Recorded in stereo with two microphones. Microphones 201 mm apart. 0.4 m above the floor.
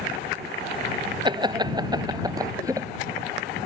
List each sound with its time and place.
1.2 s laughter: 20° right (ahead or behind); by 2.9 s 15° right (ahead or behind)